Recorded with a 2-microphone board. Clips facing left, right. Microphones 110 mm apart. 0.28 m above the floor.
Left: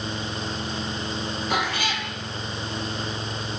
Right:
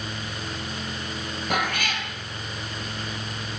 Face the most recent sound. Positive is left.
turn(degrees=-55)  # may be behind; listen again after turning